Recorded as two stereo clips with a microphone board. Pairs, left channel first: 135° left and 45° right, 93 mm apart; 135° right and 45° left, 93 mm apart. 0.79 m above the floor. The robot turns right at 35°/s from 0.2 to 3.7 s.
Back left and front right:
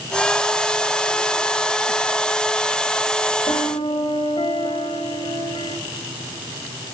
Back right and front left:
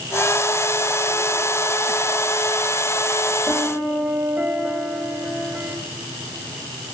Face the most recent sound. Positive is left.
turn(degrees=120)